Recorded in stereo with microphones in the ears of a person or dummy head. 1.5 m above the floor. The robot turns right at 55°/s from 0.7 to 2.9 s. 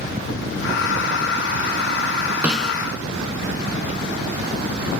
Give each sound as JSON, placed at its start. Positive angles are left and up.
{"t": 2.4, "sound": "a snare drum", "side_deg": -10, "distance_m": 4.0}